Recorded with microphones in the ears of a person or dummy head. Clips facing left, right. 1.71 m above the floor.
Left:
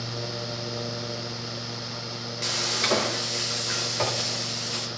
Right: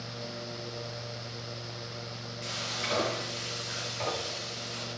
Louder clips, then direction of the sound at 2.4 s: Left 8 dB; 75° left (ahead or behind).